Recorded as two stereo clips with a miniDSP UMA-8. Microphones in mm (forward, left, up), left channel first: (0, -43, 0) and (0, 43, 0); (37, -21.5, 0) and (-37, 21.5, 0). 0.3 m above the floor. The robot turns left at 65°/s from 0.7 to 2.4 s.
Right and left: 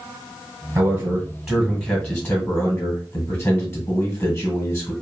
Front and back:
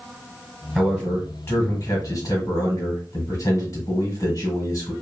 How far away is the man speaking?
About 1.6 m.